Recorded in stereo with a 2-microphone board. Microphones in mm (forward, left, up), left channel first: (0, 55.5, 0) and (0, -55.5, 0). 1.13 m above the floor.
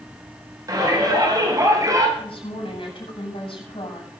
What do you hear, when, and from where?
0.7 s a shout: 35° right (ahead or behind), 6 m
2.2 s a woman speaking: 60° left (ahead or behind), 7.5 m